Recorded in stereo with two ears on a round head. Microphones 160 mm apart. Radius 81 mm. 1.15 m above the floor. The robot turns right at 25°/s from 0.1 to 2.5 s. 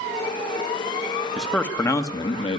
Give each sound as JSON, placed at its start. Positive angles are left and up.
{"t": 1.4, "sound": "a man speaking", "side_deg": 0, "distance_m": 1.4}